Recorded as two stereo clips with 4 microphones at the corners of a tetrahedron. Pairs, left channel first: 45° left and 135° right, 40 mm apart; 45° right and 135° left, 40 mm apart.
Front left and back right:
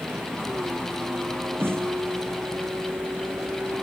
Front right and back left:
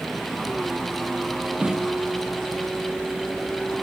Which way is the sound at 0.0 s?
130° right.